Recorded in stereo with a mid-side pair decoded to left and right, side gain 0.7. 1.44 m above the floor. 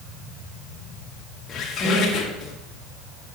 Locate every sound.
1.5 s a squeak: 35° left, 2 m